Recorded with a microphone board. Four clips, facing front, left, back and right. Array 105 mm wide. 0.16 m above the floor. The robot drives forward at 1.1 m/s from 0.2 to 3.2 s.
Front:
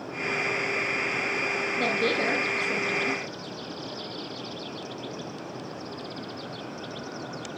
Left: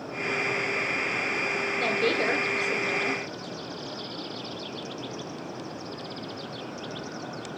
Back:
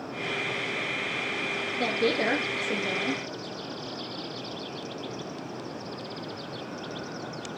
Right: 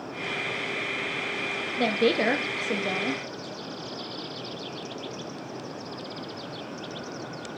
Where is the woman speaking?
85° right, 3 m; by 3.2 s 115° right, 3.5 m.